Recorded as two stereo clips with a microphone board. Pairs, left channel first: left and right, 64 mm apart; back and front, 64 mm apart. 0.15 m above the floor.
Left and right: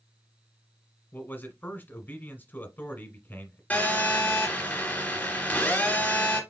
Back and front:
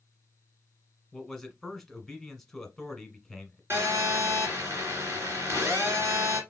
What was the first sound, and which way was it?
A man speaking, 100° left.